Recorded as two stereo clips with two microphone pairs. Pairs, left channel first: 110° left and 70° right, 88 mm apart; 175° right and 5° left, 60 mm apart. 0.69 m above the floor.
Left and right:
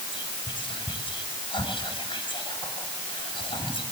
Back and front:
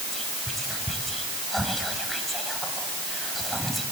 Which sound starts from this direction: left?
Whispering, at 0.1 s.